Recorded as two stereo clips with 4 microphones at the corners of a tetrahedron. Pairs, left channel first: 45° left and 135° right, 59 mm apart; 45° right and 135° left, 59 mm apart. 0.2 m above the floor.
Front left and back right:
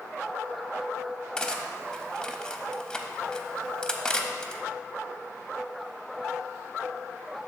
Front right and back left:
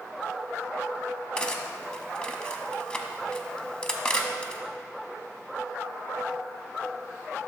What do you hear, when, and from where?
1.4 s cutlery clinking: 5° right, 0.5 m